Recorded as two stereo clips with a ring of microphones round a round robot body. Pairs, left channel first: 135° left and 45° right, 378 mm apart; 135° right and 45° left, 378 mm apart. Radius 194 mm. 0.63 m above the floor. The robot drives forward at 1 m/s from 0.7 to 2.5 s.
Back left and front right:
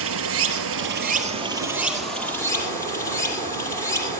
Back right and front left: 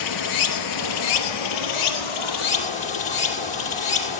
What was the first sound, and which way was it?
Running water, 100° right.